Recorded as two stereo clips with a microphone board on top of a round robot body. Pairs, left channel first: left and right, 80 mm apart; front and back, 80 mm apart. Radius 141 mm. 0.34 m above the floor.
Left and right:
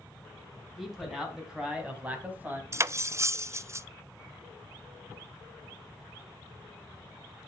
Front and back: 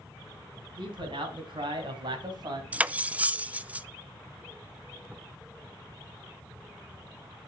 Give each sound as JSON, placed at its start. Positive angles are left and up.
{"t": 0.8, "sound": "a man speaking", "azimuth_deg": 180, "distance_m": 4.5}
{"t": 2.7, "sound": "cutlery clinking", "azimuth_deg": -120, "distance_m": 0.7}